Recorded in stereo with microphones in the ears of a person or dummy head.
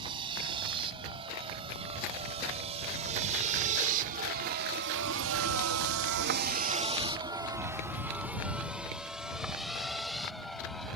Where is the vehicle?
25° right (ahead or behind); by 11.0 s centre (ahead or behind).